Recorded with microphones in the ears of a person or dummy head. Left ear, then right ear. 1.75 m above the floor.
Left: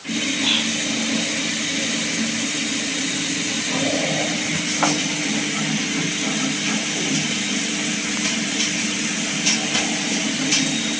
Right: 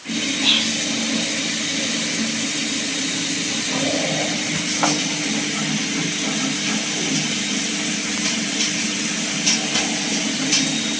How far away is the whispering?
About 7.5 m.